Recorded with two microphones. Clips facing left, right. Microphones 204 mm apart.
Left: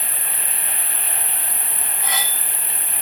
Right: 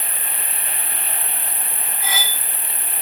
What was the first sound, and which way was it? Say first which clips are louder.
An insect: even; 20° right (ahead or behind).